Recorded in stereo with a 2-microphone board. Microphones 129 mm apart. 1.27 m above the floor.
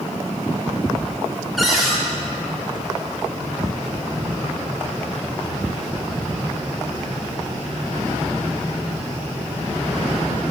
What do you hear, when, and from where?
1.6 s a cupboard door: centre (ahead or behind), 1.4 m